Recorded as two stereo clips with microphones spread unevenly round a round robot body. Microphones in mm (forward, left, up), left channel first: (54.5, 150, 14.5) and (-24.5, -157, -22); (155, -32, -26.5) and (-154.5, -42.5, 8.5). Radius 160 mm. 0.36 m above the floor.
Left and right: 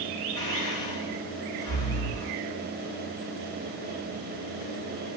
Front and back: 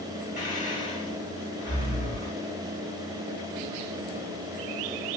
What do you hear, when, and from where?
0.4 s breathing: 65° left, 1.2 m